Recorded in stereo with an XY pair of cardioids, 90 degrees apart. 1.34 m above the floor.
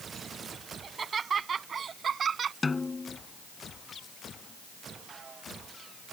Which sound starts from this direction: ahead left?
A snare drum, at 2.6 s.